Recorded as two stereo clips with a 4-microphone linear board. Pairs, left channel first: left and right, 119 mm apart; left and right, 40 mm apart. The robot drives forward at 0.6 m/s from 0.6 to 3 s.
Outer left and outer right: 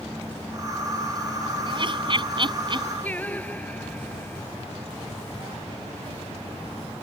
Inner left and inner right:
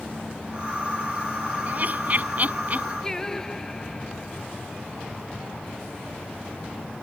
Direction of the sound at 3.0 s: 15° left (ahead or behind).